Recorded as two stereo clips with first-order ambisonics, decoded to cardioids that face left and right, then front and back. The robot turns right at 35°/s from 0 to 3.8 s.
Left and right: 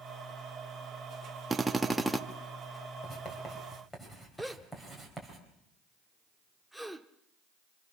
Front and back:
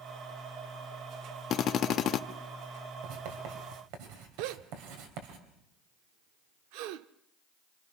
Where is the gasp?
Straight behind, 0.8 m.